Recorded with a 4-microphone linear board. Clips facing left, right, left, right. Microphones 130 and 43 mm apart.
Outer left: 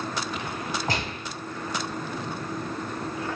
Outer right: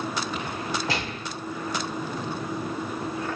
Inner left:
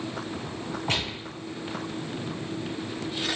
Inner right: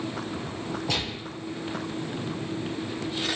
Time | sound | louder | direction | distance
0.9 | a gunshot | even, inner left 3 dB | 45° left (ahead or behind) | 1.5 m